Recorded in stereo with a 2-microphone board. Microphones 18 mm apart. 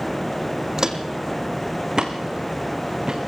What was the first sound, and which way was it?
Footsteps, 35° right (ahead or behind).